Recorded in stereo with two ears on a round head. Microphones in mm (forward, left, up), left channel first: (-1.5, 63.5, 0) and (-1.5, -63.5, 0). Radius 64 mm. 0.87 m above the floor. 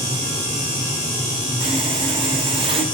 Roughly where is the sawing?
Right.